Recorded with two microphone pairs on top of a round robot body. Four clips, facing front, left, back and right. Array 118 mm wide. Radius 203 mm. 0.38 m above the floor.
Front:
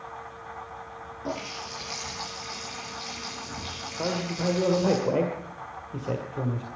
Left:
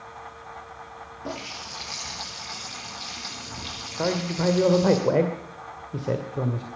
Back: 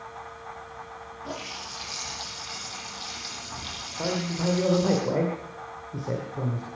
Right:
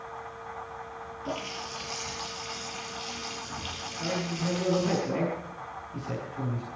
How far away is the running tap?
About 7.5 m.